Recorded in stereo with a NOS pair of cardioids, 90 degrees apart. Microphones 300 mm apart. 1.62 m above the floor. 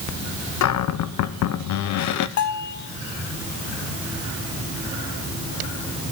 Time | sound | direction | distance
0.6 | a cupboard door | 65° left | 0.8 m
2.4 | a bell | 65° left | 1.3 m